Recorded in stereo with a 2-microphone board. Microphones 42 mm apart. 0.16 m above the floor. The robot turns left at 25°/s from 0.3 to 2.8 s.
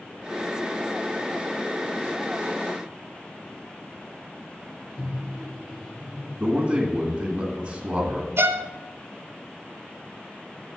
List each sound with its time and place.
5.0 s a microwave: 30° left (ahead or behind), 1.9 m
6.4 s a man speaking: 20° right (ahead or behind), 1.6 m
8.4 s a violin: 75° right (ahead or behind), 0.5 m